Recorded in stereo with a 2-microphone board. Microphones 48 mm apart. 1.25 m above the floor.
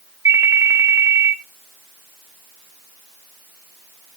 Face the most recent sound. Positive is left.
turn(degrees=-70)  # may be behind; listen again after turning